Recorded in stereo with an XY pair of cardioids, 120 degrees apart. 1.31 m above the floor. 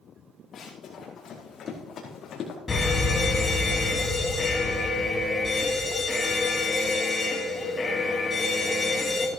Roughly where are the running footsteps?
Ahead left.